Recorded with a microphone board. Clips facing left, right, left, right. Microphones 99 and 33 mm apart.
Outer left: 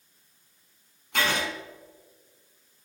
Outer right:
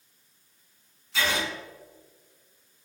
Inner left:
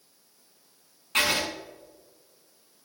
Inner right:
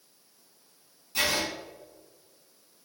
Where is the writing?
55° left (ahead or behind), 1.8 m.